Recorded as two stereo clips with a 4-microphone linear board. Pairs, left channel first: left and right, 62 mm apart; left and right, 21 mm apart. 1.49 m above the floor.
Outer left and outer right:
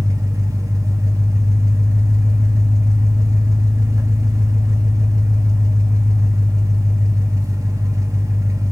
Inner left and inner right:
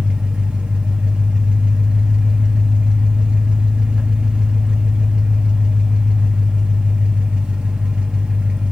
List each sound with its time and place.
0.0 s an engine running: 70° right (ahead or behind), 1.1 m